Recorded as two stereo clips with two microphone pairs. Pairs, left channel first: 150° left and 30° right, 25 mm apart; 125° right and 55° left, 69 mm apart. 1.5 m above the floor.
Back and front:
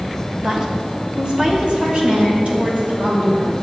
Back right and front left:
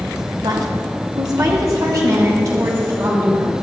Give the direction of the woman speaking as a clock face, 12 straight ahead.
11 o'clock.